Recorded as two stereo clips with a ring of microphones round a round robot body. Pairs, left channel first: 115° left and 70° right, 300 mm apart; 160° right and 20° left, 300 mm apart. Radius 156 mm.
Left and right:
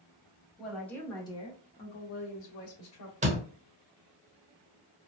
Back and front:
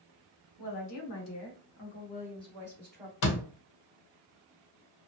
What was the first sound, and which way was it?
A woman speaking, 155° right.